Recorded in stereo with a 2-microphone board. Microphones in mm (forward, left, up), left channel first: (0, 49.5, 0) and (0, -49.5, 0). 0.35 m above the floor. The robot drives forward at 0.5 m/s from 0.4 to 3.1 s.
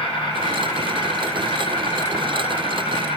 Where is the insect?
55° left (ahead or behind), 6 m; by 3.2 s 65° left (ahead or behind), 5.5 m.